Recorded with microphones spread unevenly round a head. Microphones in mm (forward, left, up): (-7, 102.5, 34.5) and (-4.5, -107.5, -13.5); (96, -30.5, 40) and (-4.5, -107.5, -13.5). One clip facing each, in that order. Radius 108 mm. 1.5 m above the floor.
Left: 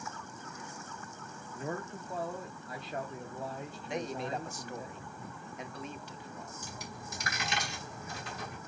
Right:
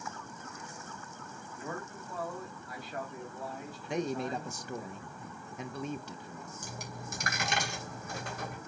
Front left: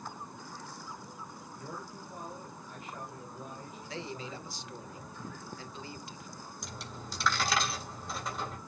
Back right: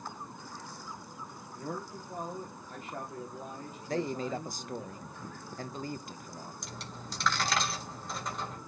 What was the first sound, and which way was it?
A man speaking, 160° left.